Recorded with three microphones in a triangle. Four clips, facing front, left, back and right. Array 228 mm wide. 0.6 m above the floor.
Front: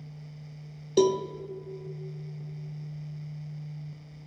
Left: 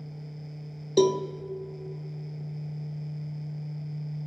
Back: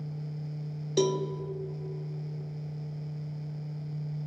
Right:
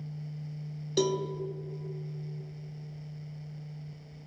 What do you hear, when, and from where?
1.0 s a cowbell: 55° left, 0.6 m